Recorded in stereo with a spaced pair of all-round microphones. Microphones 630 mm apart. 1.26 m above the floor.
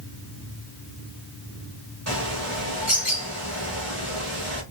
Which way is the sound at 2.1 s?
25° right (ahead or behind).